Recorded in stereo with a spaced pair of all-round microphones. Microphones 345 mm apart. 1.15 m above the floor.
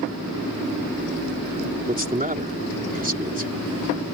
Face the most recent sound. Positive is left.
turn(degrees=-25)  # may be behind; listen again after turning